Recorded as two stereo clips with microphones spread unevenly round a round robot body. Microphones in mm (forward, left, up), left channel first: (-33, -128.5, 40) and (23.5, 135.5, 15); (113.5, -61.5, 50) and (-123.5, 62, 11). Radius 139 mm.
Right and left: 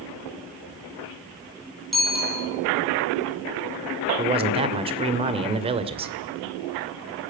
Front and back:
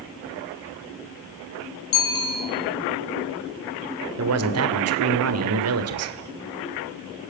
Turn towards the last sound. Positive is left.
turn(degrees=145)